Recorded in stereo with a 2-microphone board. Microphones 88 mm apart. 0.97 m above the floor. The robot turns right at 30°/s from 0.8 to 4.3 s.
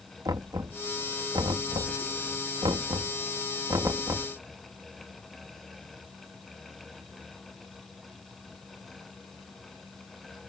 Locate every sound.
0.2 s knocking: 45° right (ahead or behind); by 4.3 s 30° right (ahead or behind)